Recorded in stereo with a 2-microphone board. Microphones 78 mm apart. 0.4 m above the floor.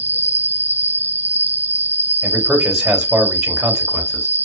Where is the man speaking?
5° right (ahead or behind), 2.5 m.